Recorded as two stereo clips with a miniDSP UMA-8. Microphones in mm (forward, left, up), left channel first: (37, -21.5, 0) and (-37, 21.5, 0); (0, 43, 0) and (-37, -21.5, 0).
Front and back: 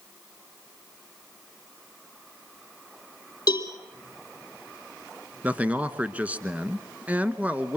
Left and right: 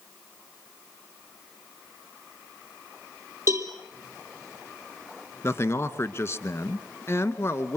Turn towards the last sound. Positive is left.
turn(degrees=85)